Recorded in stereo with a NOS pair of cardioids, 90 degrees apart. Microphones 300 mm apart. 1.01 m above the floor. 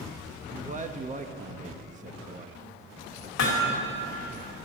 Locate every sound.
0.5 s a man speaking: 25° right, 1.0 m
3.4 s hammering: 65° left, 2 m